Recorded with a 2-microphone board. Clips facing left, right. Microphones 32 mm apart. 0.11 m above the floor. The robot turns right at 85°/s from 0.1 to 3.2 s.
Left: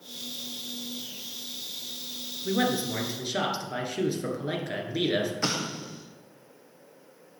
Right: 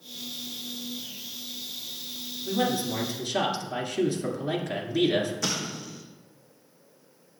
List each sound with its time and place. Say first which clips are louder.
2.5 s a man speaking: even; 105° left, 1.4 m; by 5.3 s 170° left, 1.4 m
5.4 s an explosion: left 1 dB; 35° left (ahead or behind), 1.1 m